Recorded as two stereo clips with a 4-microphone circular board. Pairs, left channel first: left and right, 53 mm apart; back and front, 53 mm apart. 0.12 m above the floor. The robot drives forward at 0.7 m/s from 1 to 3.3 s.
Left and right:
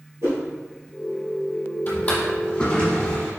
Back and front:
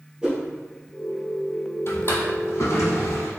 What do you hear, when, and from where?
0.2 s a whoosh: 70° right, 1.8 m
1.9 s a drawer: 145° left, 1.0 m; by 3.3 s 165° left, 1.9 m